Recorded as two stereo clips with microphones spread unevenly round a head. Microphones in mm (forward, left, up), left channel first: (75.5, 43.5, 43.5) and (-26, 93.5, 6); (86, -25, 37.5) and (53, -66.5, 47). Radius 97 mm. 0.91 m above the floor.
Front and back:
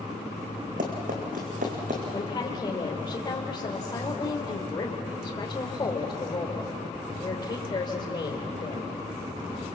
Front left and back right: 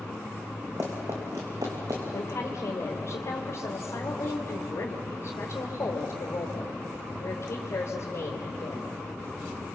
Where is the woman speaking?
25° left, 3 m.